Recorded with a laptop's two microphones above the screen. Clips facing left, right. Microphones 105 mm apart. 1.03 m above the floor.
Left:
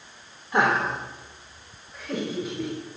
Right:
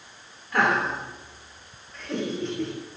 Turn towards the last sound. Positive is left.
turn(degrees=5)  # may be behind; listen again after turning